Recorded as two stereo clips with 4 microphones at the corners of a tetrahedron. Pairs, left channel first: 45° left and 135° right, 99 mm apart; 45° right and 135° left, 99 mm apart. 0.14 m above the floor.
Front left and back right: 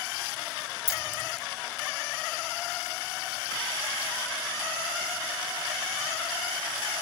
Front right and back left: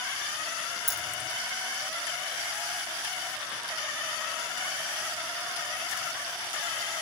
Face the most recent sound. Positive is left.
turn(degrees=45)